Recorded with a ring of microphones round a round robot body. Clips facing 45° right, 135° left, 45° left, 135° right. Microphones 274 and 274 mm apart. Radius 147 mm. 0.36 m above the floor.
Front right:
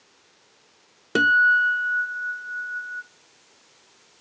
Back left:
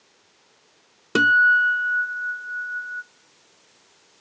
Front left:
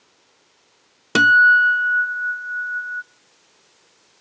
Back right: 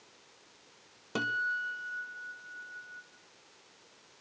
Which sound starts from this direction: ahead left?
A guitar, at 1.1 s.